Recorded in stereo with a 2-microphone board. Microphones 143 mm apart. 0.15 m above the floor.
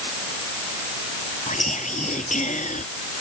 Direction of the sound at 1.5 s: 60° left (ahead or behind).